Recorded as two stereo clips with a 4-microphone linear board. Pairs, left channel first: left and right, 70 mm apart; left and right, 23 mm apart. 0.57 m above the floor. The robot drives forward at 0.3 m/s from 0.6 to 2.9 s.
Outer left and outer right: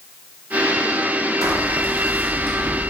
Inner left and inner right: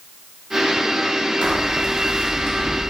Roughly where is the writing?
Right.